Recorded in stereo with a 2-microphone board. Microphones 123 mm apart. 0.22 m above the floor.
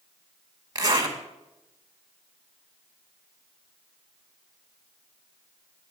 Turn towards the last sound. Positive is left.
turn(degrees=-35)  # may be behind; listen again after turning